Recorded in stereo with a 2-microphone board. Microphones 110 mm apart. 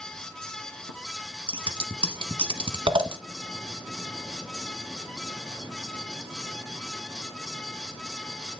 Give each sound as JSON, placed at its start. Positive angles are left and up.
{"t": 1.5, "sound": "scissors", "side_deg": -50, "distance_m": 1.1}